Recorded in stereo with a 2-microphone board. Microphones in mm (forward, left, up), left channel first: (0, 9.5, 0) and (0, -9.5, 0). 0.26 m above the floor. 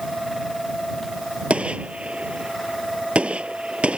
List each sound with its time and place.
1.5 s a gunshot: 75° right (ahead or behind)